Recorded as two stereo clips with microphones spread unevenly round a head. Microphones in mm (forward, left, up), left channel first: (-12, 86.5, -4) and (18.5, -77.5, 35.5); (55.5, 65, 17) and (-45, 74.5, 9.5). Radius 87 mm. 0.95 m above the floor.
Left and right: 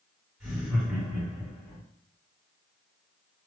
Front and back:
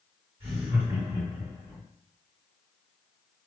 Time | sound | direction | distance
0.4 | laughter | 165° right | 1.9 m